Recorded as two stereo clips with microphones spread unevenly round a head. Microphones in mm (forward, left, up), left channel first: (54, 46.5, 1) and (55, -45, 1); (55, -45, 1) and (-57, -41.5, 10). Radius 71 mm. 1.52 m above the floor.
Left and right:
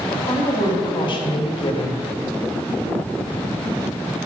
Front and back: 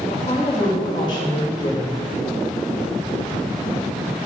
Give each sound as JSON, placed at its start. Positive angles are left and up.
{"t": 0.1, "sound": "a woman speaking", "azimuth_deg": 60, "distance_m": 3.5}